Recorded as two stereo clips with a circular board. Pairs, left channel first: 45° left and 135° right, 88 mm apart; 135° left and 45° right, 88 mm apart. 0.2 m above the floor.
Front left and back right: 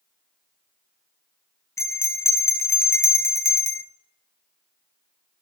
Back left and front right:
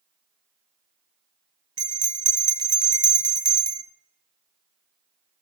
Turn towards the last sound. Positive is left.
turn(degrees=-10)